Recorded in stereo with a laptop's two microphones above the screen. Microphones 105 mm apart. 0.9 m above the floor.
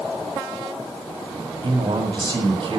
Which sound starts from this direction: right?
A man speaking, at 1.6 s.